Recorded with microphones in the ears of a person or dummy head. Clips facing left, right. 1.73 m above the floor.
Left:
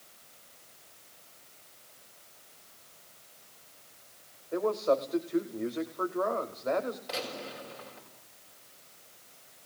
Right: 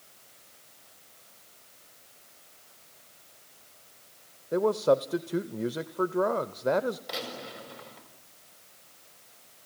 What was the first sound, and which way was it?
A man speaking, 50° right (ahead or behind).